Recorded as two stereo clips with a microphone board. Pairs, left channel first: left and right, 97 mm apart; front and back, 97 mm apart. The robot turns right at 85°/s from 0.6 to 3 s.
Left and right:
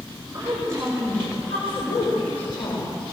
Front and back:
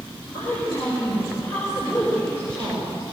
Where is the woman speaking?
40° right, 5.5 m; by 3.0 s 160° left, 5.5 m.